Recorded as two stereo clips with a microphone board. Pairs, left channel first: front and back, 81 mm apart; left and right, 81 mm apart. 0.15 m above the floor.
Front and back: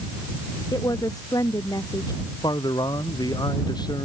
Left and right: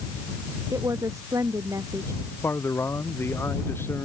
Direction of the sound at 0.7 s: 40° right.